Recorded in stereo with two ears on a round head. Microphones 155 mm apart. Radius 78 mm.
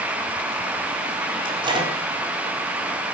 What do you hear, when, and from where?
1.4 s a microwave: 30° right (ahead or behind), 4.5 m